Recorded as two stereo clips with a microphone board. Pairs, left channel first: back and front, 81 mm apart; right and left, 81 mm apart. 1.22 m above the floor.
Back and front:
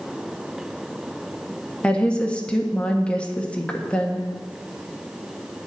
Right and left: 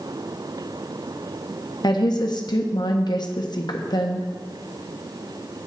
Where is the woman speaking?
105° right, 1.2 m.